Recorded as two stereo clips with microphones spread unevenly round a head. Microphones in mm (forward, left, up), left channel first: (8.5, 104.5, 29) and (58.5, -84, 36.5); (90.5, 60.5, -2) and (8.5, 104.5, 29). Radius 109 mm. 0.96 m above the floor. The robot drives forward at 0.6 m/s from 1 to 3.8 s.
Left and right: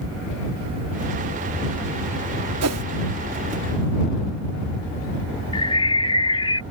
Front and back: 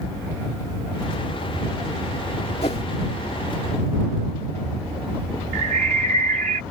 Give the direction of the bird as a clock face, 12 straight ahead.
6 o'clock.